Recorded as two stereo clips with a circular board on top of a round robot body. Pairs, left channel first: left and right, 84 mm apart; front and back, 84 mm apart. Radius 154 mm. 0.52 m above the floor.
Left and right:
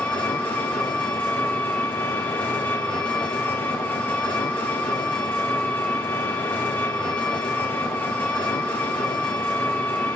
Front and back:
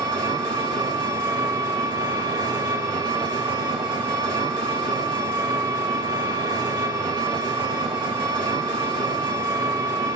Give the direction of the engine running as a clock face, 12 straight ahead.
7 o'clock.